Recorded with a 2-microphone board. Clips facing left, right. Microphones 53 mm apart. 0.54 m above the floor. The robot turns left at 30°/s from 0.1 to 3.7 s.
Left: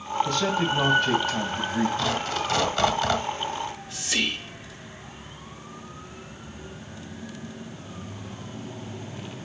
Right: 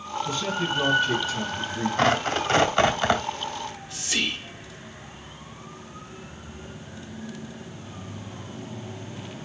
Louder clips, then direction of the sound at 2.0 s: Right 4 dB; 120° right.